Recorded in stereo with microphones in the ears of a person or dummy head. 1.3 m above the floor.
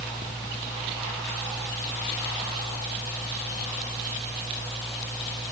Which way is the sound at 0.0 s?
10° left (ahead or behind).